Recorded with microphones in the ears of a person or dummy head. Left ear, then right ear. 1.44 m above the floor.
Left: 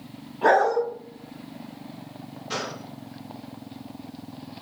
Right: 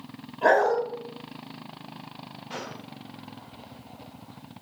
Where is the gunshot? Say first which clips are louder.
Left 7 dB; 40° left (ahead or behind), 1.2 m.